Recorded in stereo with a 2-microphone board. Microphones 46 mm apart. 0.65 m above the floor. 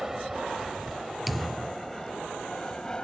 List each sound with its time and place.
0.0 s an aircraft: 10° right (ahead or behind); by 3.0 s 15° left (ahead or behind)
1.3 s a thud: centre (ahead or behind)